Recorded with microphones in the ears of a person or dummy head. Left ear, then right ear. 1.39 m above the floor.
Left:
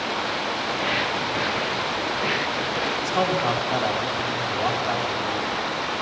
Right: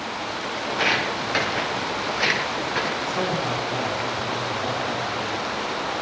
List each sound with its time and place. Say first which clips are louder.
0.7 s footsteps: right 4 dB; 45° right (ahead or behind), 2.5 m; by 2.9 s 60° right (ahead or behind), 3 m
3.0 s a man speaking: left 2 dB; 60° left (ahead or behind), 3 m